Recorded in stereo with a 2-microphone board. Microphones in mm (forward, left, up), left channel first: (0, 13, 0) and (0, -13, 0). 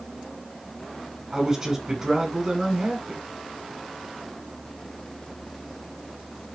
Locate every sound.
1.3 s a man speaking: 25° right (ahead or behind), 6 m